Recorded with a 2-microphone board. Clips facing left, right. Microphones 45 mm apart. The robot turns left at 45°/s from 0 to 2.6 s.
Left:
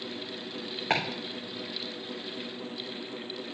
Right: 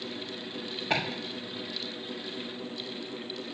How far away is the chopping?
About 3.5 m.